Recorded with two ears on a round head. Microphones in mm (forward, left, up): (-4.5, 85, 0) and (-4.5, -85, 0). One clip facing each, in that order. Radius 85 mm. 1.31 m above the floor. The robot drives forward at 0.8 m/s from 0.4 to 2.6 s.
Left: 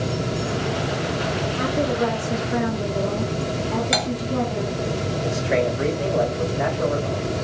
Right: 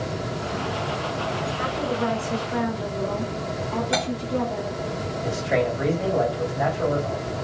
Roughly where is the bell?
No bell in this recording.